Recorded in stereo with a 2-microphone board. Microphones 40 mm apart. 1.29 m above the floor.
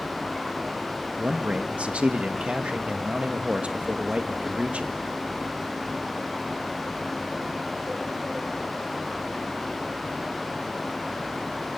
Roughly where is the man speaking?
Right.